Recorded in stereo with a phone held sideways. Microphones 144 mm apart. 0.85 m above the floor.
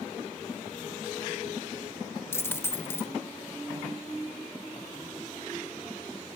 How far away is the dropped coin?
About 0.8 m.